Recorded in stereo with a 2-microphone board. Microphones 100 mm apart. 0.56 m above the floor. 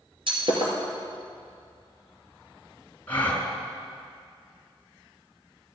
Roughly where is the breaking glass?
Right.